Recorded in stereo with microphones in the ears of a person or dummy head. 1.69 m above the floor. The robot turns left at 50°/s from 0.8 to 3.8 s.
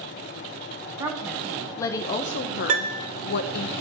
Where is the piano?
50° right (ahead or behind), 0.5 m; by 3.1 s 35° right (ahead or behind), 0.5 m.